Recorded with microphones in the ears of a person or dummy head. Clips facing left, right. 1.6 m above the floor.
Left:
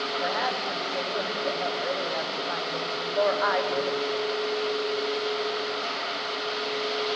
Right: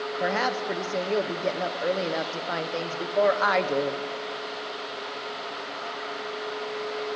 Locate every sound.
0.2 s a woman speaking: 40° right (ahead or behind), 0.6 m